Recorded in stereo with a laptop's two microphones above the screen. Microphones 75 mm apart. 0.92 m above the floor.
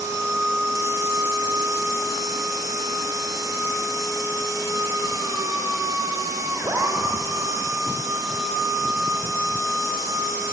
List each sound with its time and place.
0.0 s a machine running: 60° right (ahead or behind), 1.5 m